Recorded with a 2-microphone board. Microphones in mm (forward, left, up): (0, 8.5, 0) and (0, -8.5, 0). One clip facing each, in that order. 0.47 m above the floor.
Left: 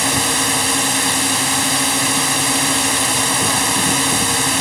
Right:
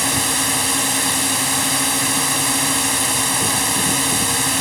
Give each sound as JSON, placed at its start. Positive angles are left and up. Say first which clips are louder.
{"t": 0.0, "sound": "a drone", "louder": "left 2 dB", "side_deg": 10}